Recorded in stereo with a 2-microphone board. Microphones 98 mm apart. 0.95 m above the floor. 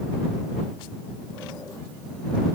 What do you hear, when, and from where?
Only background noise.